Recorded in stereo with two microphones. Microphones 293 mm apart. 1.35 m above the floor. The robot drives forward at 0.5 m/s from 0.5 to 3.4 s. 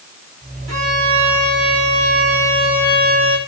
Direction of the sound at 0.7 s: 65° right (ahead or behind).